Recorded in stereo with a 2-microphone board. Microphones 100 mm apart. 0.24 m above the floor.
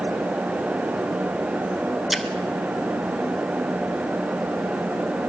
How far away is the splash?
About 0.7 m.